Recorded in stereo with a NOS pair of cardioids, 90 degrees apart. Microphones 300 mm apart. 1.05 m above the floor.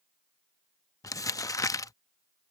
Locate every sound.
1.0 s crumpling: 10° left